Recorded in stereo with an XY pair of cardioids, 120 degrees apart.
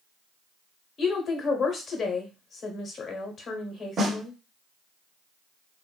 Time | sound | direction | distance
1.0 | a woman speaking | 45° left | 1.0 m
4.0 | a snare drum | 45° right | 0.7 m